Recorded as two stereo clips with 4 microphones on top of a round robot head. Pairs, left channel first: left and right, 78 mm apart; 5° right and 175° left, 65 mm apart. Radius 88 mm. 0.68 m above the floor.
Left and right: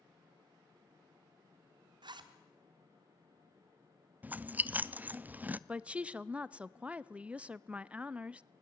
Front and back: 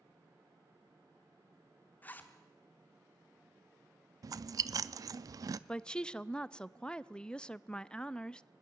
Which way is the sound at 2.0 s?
70° right.